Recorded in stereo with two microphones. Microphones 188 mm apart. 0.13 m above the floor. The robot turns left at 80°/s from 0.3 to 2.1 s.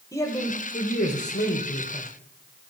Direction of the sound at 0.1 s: 160° left.